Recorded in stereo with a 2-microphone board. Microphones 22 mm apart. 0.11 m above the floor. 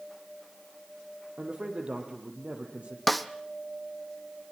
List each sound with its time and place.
1.4 s a man speaking: 65° right (ahead or behind), 4.5 m
3.1 s a snare drum: 5° left (ahead or behind), 0.9 m